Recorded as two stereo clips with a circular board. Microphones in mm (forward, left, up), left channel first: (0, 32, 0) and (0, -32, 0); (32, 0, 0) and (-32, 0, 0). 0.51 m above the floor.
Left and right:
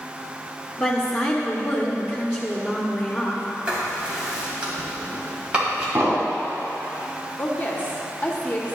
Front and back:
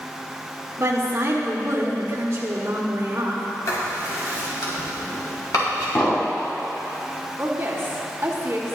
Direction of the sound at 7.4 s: 145° left.